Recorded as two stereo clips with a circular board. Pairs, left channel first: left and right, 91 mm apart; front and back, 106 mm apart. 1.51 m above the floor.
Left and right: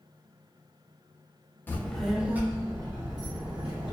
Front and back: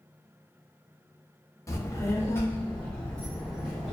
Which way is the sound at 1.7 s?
35° left.